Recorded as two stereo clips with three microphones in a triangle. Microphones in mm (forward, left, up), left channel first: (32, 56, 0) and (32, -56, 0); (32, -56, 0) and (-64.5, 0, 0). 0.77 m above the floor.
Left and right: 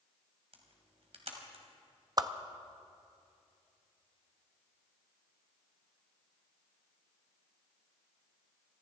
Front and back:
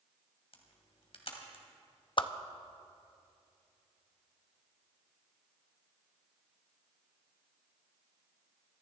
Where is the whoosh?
50° right, 0.6 m.